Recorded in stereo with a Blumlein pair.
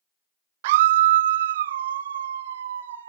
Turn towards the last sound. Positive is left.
turn(degrees=-60)